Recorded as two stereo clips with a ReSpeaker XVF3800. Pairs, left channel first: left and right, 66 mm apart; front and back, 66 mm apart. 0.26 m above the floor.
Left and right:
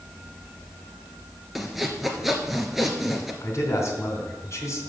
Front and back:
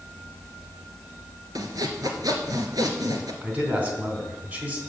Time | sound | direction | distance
1.6 | sawing | 175° right | 1.4 m
3.4 | a man speaking | 120° left | 2.5 m